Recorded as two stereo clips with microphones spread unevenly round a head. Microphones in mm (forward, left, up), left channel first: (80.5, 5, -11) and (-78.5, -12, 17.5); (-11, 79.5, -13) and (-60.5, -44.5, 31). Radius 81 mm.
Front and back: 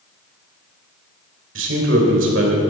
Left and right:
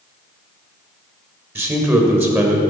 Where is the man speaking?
175° left, 3.5 m.